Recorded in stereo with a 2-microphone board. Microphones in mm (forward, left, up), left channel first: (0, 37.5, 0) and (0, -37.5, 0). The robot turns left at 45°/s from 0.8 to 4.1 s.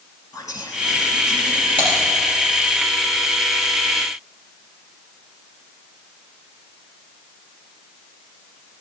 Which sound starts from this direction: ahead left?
Whispering, at 0.3 s.